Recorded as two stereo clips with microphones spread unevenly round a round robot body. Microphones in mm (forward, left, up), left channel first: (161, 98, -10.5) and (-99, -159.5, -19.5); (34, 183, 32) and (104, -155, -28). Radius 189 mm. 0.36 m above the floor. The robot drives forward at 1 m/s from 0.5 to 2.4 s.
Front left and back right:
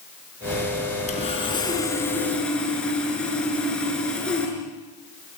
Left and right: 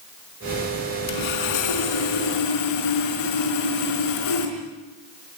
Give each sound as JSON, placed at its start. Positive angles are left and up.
{"t": 1.1, "sound": "sawing", "azimuth_deg": 115, "distance_m": 4.0}